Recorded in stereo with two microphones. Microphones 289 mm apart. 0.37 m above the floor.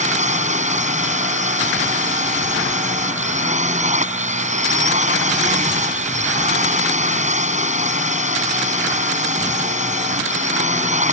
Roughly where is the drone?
Right.